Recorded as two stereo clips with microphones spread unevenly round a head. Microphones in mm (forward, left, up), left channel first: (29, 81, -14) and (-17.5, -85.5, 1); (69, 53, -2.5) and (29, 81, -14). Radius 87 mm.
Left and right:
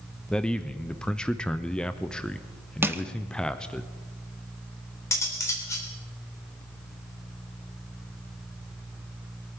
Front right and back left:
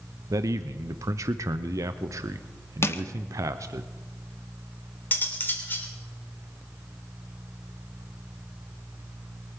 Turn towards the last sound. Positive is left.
turn(degrees=0)